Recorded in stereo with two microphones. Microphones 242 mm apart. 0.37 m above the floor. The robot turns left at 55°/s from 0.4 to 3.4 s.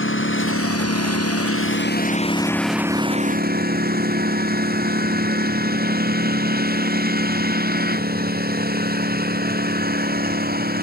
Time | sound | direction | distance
0.0 | a lawn mower | 125° left | ?